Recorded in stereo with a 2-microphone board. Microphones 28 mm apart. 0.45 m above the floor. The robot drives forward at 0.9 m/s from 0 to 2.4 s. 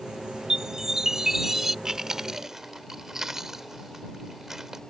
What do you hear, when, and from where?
0.5 s a chime: 20° right (ahead or behind); by 1.8 s 15° right (ahead or behind)
1.9 s chewing: 20° right (ahead or behind)